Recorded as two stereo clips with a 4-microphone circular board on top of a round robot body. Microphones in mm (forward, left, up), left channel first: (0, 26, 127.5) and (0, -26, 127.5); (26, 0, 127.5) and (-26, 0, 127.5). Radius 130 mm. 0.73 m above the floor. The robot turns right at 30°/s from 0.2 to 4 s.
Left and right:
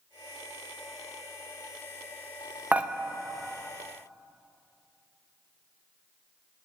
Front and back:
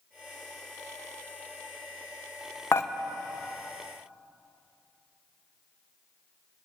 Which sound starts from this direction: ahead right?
Dishes clattering, at 2.7 s.